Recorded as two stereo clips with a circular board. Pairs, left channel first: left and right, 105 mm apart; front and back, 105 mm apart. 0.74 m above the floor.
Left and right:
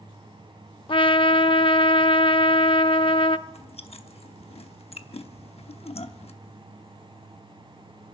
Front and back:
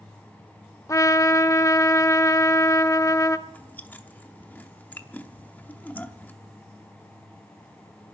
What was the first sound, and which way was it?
A trumpet, 55° left.